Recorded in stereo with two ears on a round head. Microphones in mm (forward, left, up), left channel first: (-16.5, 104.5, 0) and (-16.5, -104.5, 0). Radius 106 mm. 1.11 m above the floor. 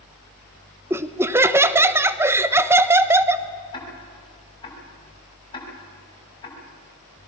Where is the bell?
I don't hear a bell.